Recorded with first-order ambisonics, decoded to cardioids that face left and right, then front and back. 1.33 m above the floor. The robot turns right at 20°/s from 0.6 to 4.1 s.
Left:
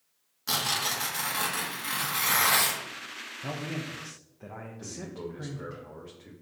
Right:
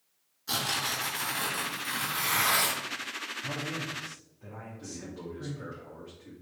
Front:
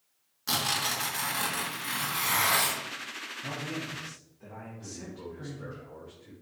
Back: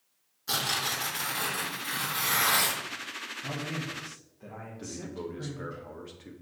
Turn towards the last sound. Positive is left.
turn(degrees=165)